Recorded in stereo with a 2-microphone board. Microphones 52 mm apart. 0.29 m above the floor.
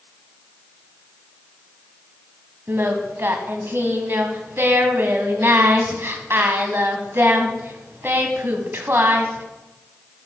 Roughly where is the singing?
Right.